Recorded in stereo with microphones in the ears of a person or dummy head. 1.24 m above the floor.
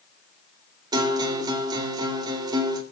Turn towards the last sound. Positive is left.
turn(degrees=-25)  # may be behind; listen again after turning